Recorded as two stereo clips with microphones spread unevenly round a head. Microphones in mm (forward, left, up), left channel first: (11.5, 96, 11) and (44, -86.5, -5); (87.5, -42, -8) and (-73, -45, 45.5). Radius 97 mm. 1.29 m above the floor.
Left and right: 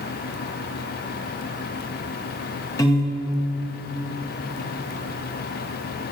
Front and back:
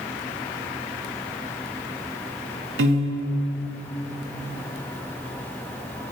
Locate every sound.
2.8 s a piano: 175° left, 1.3 m